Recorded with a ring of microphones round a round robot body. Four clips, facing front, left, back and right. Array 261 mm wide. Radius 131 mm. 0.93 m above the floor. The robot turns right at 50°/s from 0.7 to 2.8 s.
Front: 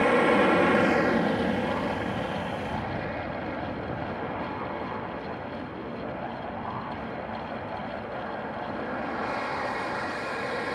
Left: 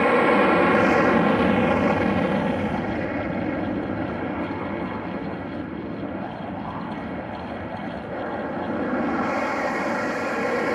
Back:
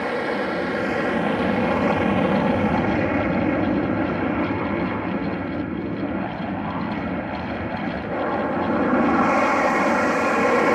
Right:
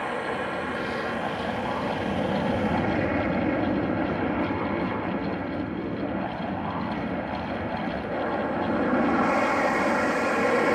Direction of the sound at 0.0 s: 80° left.